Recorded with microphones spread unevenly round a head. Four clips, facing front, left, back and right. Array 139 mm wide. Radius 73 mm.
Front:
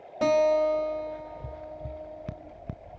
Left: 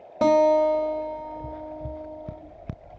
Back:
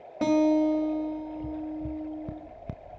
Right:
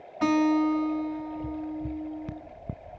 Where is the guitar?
100° left, 3 m.